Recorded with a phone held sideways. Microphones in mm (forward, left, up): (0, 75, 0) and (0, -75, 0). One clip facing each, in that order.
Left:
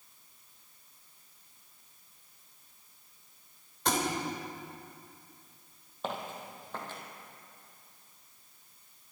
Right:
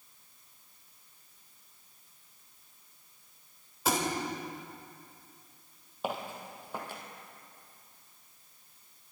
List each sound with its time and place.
3.9 s a thud: 5° right (ahead or behind), 3 m
6.0 s footsteps: 10° right (ahead or behind), 2.5 m